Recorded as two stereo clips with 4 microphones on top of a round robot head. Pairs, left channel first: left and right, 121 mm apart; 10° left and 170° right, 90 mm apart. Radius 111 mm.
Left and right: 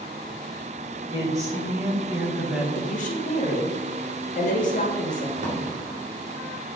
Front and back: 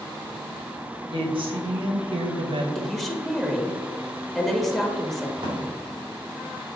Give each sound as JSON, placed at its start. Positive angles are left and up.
{"t": 1.1, "sound": "a woman speaking", "azimuth_deg": -150, "distance_m": 2.0}
{"t": 2.8, "sound": "a woman speaking", "azimuth_deg": 95, "distance_m": 1.4}
{"t": 5.4, "sound": "a drawer", "azimuth_deg": -115, "distance_m": 1.9}